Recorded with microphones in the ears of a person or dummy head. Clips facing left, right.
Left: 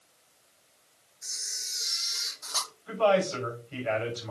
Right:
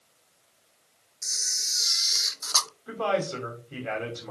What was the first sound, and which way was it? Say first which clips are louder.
A camera shutter: right 4 dB; 55° right (ahead or behind).